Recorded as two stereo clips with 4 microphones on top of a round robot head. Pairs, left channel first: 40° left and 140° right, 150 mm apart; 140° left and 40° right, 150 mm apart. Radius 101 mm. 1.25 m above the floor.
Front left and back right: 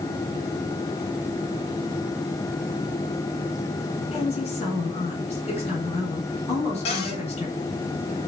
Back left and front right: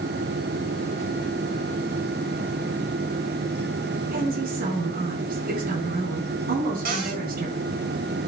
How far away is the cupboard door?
About 4 m.